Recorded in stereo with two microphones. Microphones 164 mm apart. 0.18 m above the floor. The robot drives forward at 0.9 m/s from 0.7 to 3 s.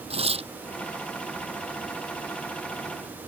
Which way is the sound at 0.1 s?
35° right (ahead or behind).